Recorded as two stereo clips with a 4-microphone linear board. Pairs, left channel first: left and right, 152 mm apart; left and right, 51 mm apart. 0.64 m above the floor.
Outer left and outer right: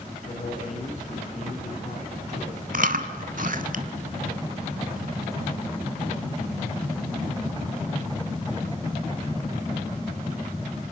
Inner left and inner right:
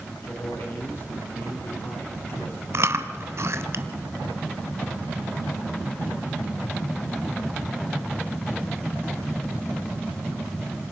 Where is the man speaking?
50° left (ahead or behind), 8.5 m.